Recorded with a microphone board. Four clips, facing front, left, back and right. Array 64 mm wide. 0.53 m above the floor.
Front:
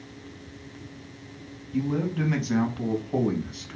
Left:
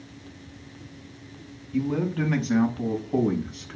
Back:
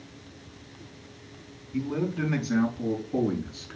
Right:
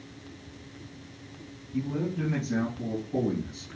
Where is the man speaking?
70° left, 4.5 m; by 3.8 s 50° left, 5 m.